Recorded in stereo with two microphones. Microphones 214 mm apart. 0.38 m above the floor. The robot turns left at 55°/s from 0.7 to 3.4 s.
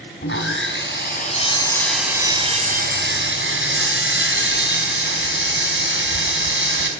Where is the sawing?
70° left, 3 m; by 6.9 s 80° right, 3 m.